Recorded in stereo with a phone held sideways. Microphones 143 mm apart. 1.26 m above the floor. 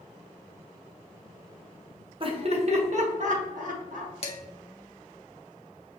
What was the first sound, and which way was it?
Laughter, 40° right (ahead or behind).